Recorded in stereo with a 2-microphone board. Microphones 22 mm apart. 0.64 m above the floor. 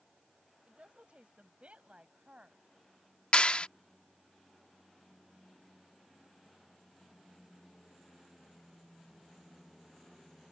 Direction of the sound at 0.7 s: 65° right (ahead or behind).